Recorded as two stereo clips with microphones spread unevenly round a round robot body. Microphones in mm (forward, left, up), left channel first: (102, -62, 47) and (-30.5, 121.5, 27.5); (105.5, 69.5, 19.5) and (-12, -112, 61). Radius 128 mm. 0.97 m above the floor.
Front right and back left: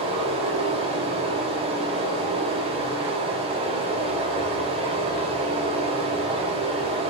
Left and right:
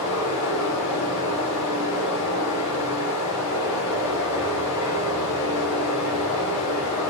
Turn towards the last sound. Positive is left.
turn(degrees=60)